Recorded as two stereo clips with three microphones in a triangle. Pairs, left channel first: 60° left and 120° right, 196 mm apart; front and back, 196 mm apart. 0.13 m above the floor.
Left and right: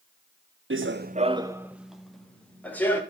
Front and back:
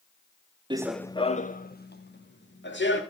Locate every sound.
0.7 s running footsteps: 115° right, 0.6 m; by 3.0 s 20° right, 3 m